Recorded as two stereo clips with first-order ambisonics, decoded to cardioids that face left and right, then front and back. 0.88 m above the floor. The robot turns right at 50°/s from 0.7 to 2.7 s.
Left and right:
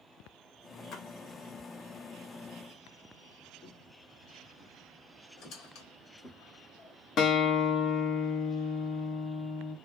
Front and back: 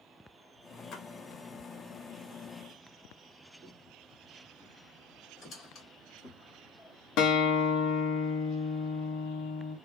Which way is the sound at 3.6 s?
105° left.